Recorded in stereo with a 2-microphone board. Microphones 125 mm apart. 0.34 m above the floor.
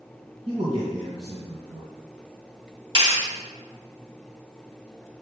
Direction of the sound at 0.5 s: 45° right (ahead or behind).